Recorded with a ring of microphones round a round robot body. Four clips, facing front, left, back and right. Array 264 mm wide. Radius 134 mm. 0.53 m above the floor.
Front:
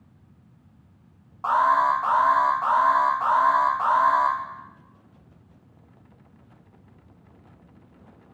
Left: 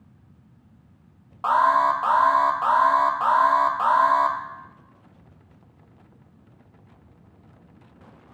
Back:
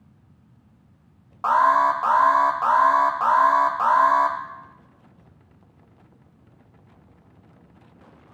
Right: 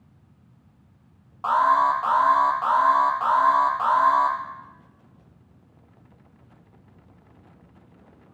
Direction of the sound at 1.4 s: 145° left.